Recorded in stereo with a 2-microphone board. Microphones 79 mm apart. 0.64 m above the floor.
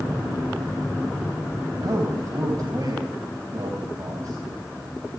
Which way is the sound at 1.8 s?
50° right (ahead or behind).